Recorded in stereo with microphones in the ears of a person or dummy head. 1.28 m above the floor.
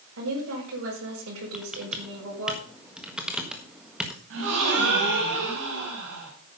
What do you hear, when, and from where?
0.2 s a woman speaking: 80° right, 6 m
1.5 s typing on a keyboard: centre (ahead or behind), 1.4 m
4.3 s a gasp: 75° right (ahead or behind), 3.5 m